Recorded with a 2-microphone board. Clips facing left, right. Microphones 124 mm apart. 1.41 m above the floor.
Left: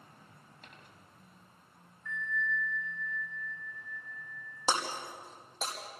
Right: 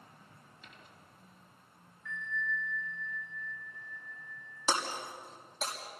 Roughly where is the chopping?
No chopping in this recording.